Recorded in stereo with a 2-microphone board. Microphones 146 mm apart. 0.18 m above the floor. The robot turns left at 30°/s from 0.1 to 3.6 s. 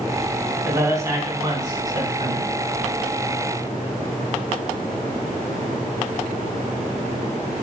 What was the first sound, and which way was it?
A man speaking, 20° right (ahead or behind).